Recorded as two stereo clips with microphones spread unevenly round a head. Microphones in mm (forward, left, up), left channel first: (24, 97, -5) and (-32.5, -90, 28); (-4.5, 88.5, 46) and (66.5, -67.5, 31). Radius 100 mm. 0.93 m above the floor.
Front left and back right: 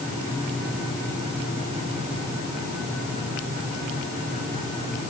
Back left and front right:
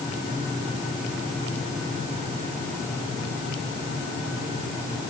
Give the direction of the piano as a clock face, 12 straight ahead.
I don't hear a piano.